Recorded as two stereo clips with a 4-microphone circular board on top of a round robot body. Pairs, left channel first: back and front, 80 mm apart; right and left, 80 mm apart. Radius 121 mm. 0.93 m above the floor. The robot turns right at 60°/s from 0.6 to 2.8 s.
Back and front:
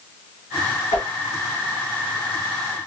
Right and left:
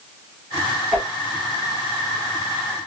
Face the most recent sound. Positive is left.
turn(degrees=-70)